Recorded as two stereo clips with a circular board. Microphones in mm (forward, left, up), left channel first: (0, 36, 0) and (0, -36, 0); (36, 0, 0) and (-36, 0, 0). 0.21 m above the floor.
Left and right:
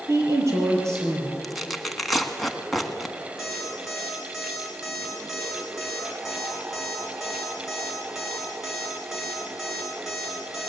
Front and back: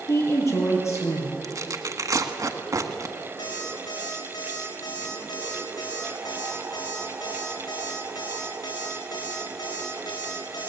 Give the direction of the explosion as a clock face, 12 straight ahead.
No explosion in this recording.